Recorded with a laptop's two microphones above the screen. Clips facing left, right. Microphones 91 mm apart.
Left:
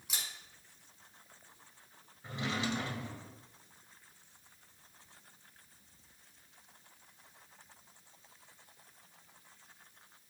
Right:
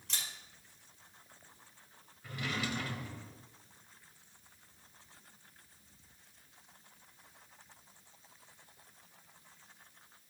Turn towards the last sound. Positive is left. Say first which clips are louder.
# left 2 dB
turn(degrees=30)  # may be behind; listen again after turning